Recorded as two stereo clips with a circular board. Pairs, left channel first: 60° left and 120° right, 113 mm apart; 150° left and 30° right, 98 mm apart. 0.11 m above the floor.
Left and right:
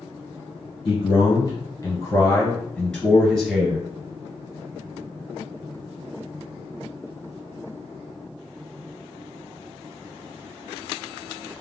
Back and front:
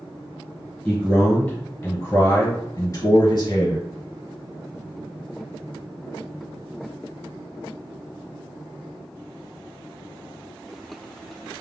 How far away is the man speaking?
About 1.4 m.